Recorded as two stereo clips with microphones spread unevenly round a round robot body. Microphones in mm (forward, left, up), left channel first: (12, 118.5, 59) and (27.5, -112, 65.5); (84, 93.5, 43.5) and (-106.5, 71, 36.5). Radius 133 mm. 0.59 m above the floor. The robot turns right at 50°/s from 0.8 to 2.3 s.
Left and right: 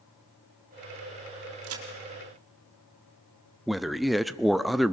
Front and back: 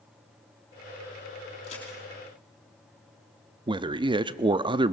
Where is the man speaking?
Straight behind, 0.6 m.